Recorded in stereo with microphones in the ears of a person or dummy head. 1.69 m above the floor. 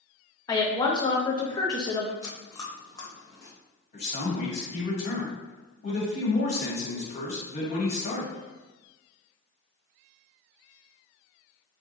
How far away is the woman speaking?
About 0.6 m.